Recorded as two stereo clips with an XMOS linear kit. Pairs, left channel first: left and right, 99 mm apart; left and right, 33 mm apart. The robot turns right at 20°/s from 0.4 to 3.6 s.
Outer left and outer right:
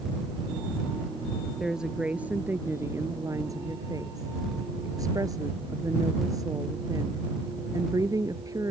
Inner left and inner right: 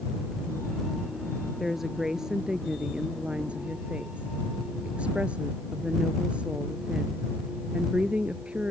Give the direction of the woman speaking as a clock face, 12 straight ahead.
6 o'clock.